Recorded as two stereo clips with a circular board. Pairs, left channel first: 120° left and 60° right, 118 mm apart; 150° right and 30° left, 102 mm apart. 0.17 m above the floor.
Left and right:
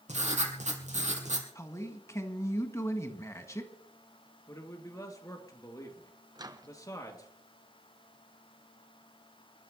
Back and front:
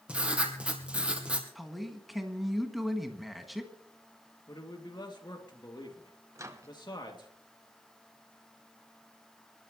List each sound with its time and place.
0.1 s writing: 50° right, 3 m
1.6 s a man speaking: 120° left, 1.7 m
4.5 s a man speaking: 175° left, 3 m
6.3 s a microwave: 20° right, 1.1 m